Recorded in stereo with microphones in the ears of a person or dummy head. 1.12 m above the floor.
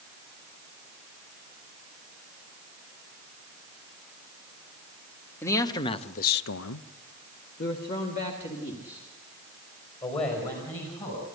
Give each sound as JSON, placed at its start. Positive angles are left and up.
{"t": 5.4, "sound": "a man speaking", "side_deg": 15, "distance_m": 1.5}